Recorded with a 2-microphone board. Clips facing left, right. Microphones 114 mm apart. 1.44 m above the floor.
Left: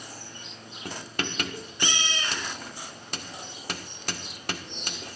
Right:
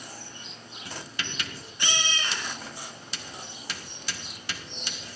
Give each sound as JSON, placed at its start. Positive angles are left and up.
{"t": 0.8, "sound": "writing", "side_deg": 50, "distance_m": 1.7}